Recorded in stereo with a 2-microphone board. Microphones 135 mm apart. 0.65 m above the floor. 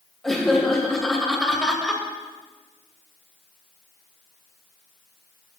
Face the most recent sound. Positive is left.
turn(degrees=0)  # may be behind; listen again after turning